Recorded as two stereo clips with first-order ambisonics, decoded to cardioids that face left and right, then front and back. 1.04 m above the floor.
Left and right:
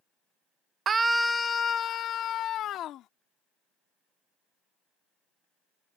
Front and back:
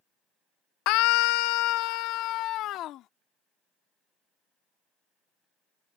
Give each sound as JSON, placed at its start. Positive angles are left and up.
{"t": 0.9, "sound": "a scream", "azimuth_deg": -25}